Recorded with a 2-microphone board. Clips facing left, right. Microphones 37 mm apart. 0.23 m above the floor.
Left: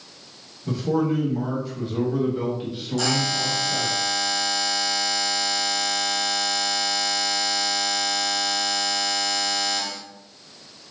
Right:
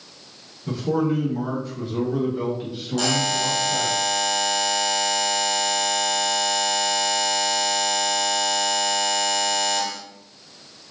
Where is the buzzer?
50° right (ahead or behind), 1.5 m.